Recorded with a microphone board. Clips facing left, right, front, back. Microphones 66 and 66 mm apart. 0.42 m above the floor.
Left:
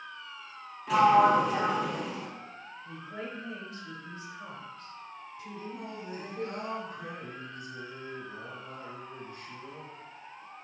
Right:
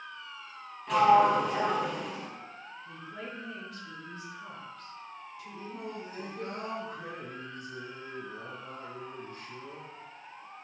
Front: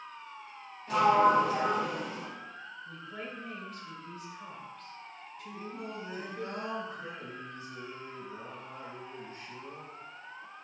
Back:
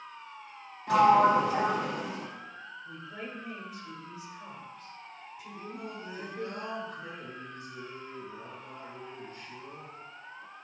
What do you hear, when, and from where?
0.9 s a sliding door: 175° left, 0.8 m
2.9 s a woman speaking: 120° left, 0.9 m
5.5 s singing: 60° right, 1.8 m